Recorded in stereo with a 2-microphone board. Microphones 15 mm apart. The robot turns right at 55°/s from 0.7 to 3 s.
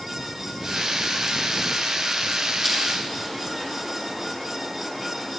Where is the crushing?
5° left (ahead or behind), 5.5 m; by 2.8 s 15° left (ahead or behind), 5.5 m.